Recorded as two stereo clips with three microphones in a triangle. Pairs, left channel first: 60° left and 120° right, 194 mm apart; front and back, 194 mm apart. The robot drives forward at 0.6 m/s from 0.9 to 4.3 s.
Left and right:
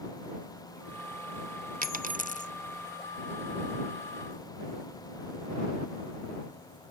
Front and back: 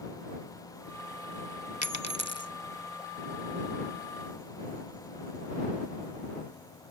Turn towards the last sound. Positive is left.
turn(degrees=-170)